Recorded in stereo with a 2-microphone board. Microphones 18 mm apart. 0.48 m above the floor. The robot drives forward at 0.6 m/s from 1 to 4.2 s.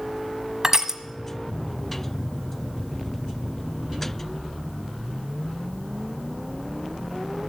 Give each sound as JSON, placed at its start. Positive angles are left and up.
{"t": 0.6, "sound": "crushing", "side_deg": -30, "distance_m": 0.9}